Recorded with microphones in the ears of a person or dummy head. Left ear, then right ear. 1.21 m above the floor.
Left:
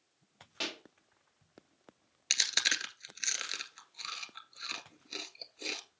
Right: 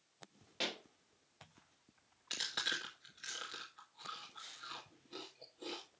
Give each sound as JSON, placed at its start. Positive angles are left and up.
{"t": 0.6, "sound": "a pop", "side_deg": 5, "distance_m": 1.1}
{"t": 2.3, "sound": "chewing", "side_deg": 70, "distance_m": 1.9}